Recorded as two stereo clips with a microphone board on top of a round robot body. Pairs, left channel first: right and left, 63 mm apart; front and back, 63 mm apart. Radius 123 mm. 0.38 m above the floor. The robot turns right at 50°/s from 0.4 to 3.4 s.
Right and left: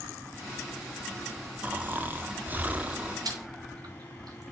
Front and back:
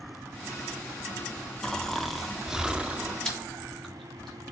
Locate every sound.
1.6 s snoring: 65° left, 0.9 m; by 3.1 s 145° left, 0.9 m
3.2 s chewing: 80° left, 2.5 m; by 4.4 s 85° left, 2.5 m